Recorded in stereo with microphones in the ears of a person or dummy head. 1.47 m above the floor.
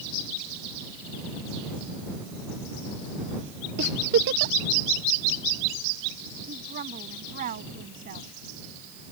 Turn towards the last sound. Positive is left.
turn(degrees=-45)  # may be behind; listen again after turning